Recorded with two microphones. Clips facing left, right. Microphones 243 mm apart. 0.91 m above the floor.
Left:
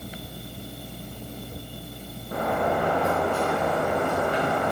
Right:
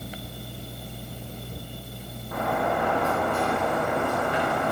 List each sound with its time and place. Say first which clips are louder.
2.3 s a sliding door: left 2 dB; 35° left (ahead or behind), 1.2 m